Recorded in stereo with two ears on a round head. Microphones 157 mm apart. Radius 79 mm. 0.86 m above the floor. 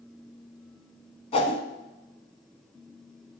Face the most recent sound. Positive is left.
turn(degrees=35)  # may be behind; listen again after turning